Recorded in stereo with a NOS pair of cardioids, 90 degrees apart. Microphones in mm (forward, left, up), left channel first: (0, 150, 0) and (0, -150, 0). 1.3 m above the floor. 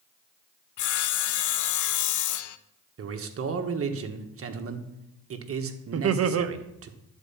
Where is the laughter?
50° right, 1.0 m.